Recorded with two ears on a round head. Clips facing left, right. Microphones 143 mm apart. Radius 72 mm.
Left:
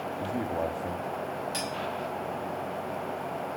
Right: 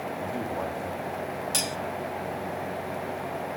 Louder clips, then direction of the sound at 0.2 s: Left 2 dB; 20° left (ahead or behind).